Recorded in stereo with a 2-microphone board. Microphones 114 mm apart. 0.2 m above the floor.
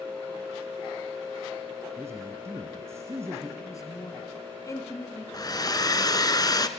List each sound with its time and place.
2.0 s a man speaking: 25° right (ahead or behind), 2.5 m
3.6 s a man speaking: 30° left (ahead or behind), 2.5 m
5.3 s a hair dryer: 35° left (ahead or behind), 1.3 m